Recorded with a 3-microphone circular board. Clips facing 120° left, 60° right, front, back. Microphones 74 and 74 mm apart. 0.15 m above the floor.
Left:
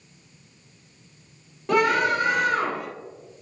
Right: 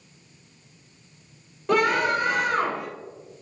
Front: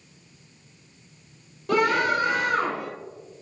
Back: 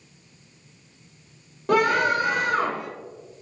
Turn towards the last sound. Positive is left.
turn(degrees=-150)